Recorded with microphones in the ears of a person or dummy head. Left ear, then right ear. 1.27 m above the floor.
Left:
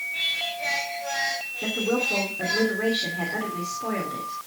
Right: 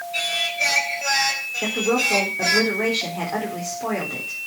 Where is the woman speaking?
30° right (ahead or behind), 3.5 m.